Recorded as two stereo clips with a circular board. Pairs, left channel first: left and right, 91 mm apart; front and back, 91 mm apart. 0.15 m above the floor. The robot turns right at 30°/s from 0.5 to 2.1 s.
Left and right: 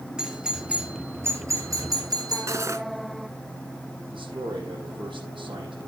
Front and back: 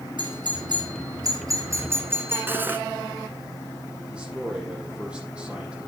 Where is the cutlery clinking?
125° right, 0.8 m.